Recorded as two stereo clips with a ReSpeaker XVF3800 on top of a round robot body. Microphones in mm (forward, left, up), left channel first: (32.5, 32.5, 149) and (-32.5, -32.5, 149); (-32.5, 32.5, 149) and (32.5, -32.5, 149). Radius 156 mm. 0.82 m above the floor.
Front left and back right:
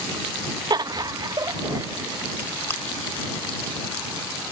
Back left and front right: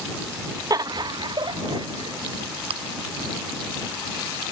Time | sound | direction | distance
0.7 | laughter | 95° right | ?
2.7 | chewing | 20° right | ?